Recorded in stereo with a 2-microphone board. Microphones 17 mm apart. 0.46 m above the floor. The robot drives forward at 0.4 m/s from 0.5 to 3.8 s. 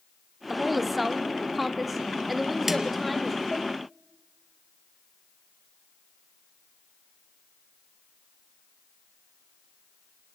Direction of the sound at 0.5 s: 10° right (ahead or behind).